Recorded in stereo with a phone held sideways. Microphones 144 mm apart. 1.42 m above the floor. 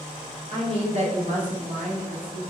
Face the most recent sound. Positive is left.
turn(degrees=-85)